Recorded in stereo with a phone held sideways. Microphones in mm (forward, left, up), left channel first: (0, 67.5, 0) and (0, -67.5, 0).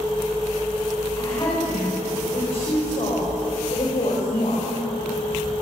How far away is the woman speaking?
About 7 m.